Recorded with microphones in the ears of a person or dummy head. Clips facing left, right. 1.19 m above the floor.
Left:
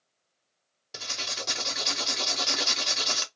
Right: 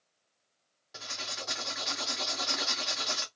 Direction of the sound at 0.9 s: 50° left (ahead or behind).